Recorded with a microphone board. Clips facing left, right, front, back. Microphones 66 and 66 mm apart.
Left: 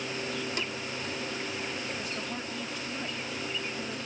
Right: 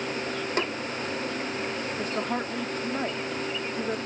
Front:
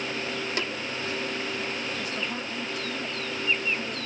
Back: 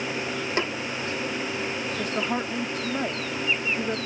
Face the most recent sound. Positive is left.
turn(degrees=-135)